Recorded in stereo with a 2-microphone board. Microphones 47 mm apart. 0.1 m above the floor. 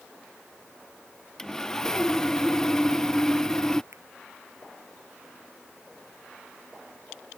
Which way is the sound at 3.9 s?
75° right (ahead or behind).